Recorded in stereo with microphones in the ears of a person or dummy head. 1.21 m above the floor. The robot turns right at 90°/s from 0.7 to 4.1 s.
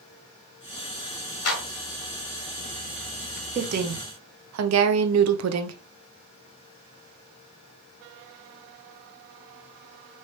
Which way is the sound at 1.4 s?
80° left.